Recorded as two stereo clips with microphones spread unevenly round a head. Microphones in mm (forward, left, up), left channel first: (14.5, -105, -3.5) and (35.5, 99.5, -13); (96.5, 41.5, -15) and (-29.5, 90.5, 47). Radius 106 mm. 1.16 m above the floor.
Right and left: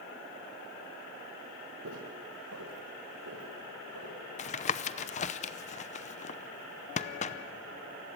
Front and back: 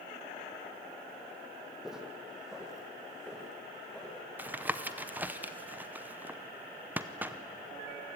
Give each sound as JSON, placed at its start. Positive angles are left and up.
{"t": 1.8, "sound": "footsteps", "azimuth_deg": 85, "distance_m": 3.5}
{"t": 4.4, "sound": "tapping", "azimuth_deg": -85, "distance_m": 0.7}